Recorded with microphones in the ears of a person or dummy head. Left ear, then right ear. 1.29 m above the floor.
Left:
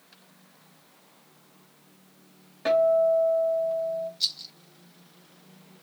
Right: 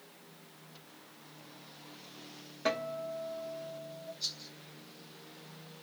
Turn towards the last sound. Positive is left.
turn(degrees=45)  # may be behind; listen again after turning